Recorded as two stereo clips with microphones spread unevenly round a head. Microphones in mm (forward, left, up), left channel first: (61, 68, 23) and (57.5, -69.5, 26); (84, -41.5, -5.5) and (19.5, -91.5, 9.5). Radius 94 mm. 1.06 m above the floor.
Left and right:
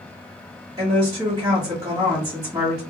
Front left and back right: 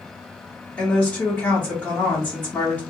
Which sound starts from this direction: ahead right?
A woman speaking, at 0.8 s.